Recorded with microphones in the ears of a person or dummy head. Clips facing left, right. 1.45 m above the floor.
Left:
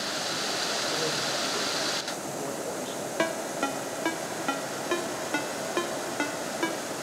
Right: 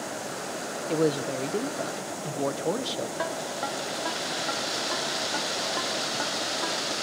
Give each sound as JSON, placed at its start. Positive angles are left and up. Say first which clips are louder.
{"t": 0.9, "sound": "a man speaking", "louder": "right 11 dB", "side_deg": -75, "distance_m": 0.7}
{"t": 3.2, "sound": "a ringtone", "louder": "left 2 dB", "side_deg": 40, "distance_m": 0.7}